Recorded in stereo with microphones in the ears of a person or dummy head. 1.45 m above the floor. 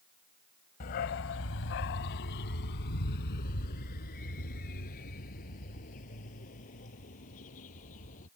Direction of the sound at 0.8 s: 40° left (ahead or behind).